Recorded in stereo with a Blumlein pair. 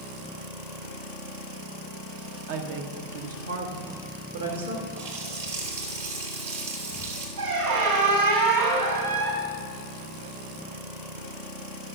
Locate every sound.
2.5 s a woman speaking: 50° right, 1.3 m; by 4.9 s 75° right, 2.5 m
5.0 s a running tap: 60° right, 2.5 m
7.4 s a squeak: 60° right, 3 m